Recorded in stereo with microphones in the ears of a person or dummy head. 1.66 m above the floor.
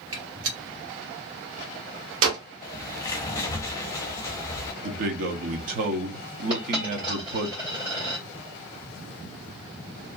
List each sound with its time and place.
0.1 s a gunshot: 80° right, 1.1 m
2.6 s a bird: 20° left (ahead or behind), 0.7 m
4.8 s a man speaking: 50° right (ahead or behind), 0.7 m
6.5 s a dropped coin: 25° right (ahead or behind), 1.4 m